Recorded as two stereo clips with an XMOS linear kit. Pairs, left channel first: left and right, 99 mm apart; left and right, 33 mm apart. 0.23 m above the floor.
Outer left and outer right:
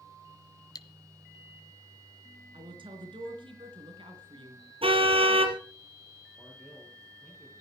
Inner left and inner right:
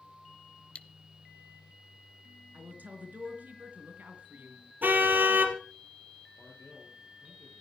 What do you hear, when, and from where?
0.8 s cutlery clinking: 40° left (ahead or behind), 0.9 m
2.5 s a woman speaking: 65° right (ahead or behind), 3.5 m
4.8 s a car horn: 80° right, 3 m
6.4 s a man speaking: 5° left (ahead or behind), 7.5 m